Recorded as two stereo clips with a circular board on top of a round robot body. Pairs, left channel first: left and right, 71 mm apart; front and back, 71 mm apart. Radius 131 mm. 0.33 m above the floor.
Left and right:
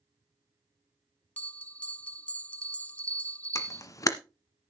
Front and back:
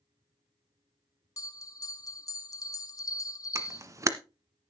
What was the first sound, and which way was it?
A bell, 25° left.